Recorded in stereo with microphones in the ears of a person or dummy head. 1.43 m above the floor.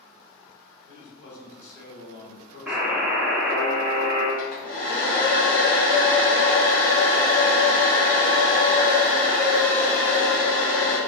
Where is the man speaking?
80° left, 1.7 m.